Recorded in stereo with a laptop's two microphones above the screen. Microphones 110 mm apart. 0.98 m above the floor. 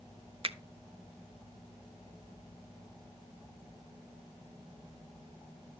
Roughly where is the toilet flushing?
I don't hear a toilet flushing.